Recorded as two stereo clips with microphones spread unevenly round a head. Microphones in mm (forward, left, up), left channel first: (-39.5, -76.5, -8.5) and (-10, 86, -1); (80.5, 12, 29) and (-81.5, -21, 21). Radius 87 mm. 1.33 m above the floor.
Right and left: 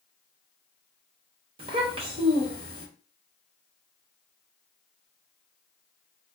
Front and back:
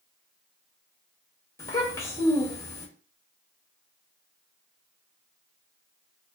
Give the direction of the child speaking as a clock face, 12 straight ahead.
10 o'clock.